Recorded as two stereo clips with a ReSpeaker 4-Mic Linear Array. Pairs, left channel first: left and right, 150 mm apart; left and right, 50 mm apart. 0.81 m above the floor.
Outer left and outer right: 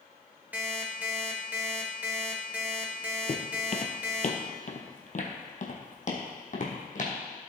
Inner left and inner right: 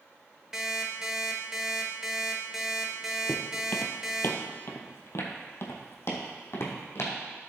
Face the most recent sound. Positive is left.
turn(degrees=55)  # may be behind; listen again after turning